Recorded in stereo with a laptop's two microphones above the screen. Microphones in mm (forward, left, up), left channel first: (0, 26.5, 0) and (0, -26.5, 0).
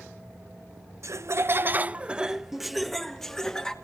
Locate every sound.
1.0 s laughter: 65° right (ahead or behind), 0.7 m; by 3.8 s 15° left (ahead or behind), 1.5 m